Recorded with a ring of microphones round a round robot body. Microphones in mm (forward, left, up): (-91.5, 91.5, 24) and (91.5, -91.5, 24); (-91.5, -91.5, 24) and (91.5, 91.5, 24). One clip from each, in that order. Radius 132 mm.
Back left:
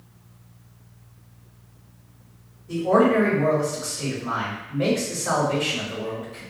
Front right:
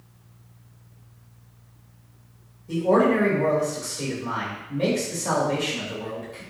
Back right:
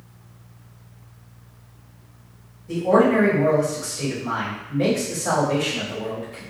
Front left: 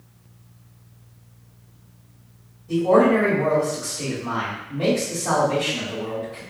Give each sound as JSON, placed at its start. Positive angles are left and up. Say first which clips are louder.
{"t": 2.7, "sound": "a man speaking", "louder": "back left 1 dB, front left 1 dB", "azimuth_deg": -70, "distance_m": 1.5}